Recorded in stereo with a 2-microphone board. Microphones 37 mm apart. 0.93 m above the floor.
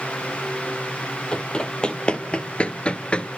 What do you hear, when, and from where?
1.3 s running footsteps: 25° left (ahead or behind), 2 m; by 3.3 s 30° left (ahead or behind), 1.0 m